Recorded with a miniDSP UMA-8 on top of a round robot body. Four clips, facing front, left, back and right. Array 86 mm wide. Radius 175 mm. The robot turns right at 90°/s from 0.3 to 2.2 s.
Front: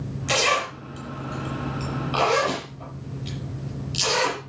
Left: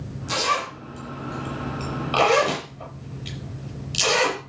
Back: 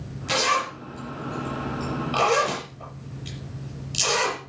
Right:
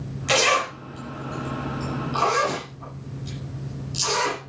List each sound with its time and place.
0.3 s a zipper: 75° right, 5.5 m; by 4.4 s 95° left, 5.5 m